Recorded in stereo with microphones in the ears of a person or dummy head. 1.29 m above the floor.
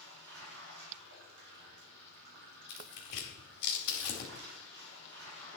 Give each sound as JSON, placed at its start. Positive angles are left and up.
{"t": 0.0, "sound": "running water", "side_deg": -60, "distance_m": 2.5}
{"t": 2.7, "sound": "tearing paper", "side_deg": 70, "distance_m": 2.5}